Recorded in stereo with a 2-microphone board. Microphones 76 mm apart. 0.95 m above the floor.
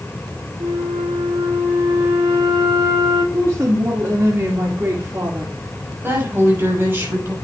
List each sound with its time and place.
0.6 s a flute: 70° right (ahead or behind), 1.9 m
3.3 s a woman speaking: 35° right (ahead or behind), 2 m
6.0 s a woman speaking: 30° right (ahead or behind), 5 m